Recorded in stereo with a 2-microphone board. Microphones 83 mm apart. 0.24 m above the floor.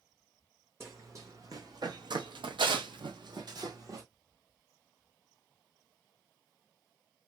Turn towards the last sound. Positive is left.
turn(degrees=-45)  # may be behind; listen again after turning